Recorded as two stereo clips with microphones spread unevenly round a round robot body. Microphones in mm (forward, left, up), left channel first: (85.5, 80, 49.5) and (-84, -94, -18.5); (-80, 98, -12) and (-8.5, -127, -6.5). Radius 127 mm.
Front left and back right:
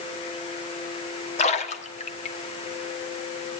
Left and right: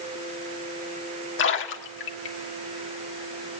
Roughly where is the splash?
Behind left.